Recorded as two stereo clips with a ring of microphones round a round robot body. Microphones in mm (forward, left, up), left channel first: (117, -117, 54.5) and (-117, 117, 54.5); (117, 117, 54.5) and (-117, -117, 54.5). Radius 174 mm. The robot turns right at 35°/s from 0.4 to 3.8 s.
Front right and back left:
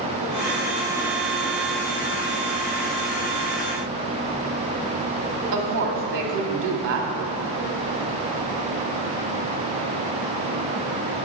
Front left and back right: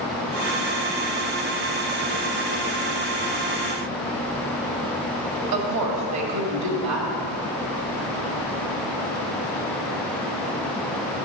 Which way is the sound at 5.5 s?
175° right.